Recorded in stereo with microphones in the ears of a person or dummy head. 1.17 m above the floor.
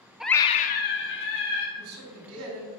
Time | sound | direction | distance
0.2 | a scream | 5° right (ahead or behind) | 0.5 m
1.8 | a man speaking | 75° right (ahead or behind) | 2.5 m